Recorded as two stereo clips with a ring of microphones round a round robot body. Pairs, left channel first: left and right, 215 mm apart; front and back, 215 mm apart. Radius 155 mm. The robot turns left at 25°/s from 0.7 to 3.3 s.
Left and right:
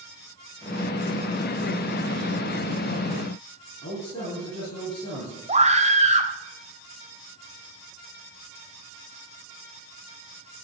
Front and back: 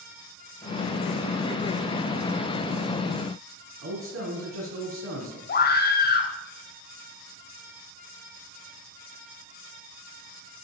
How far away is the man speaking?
About 4 m.